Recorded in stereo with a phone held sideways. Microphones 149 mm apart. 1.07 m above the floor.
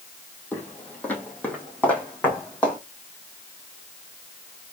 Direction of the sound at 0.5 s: 10° left (ahead or behind).